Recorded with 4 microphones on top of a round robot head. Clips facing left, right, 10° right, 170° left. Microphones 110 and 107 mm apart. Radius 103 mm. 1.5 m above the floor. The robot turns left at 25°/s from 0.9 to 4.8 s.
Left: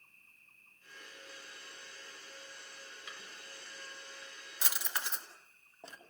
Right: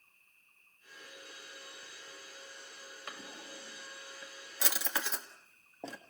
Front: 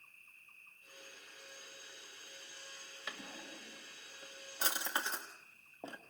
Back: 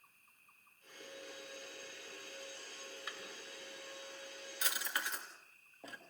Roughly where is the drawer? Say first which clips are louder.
Right 8 dB, front 1 dB; ahead right.